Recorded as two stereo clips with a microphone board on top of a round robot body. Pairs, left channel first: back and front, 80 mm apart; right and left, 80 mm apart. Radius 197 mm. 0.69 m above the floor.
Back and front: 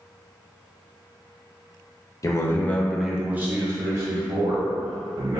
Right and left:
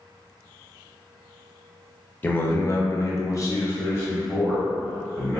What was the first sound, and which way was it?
A man speaking, 150° right.